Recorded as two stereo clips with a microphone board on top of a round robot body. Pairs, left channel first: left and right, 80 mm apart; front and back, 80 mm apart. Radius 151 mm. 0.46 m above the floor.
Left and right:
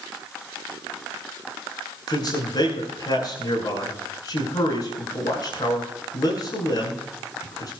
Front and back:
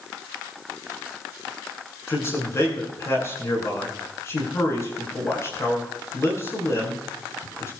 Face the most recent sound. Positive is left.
turn(degrees=55)